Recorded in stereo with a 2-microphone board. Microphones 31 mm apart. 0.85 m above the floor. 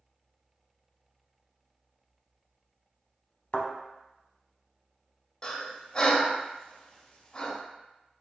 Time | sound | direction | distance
3.5 | a thud | 35° left (ahead or behind) | 0.9 m
5.4 | breathing | 25° left (ahead or behind) | 0.6 m